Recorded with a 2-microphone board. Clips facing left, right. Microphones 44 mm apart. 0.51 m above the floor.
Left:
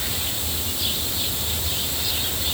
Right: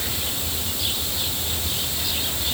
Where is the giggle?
No giggle in this recording.